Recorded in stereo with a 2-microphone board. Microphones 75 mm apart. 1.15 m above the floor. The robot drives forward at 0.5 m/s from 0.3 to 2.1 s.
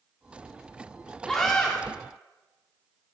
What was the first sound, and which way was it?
A scream, 5° left (ahead or behind).